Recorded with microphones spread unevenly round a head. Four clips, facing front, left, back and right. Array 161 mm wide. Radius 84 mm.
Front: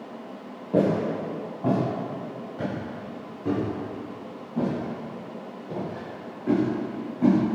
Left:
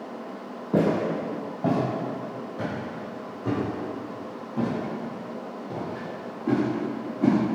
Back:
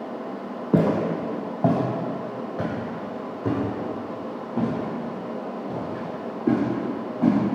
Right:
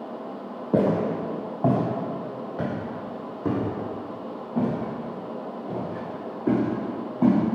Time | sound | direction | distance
0.7 | footsteps | 160° right | 1.9 m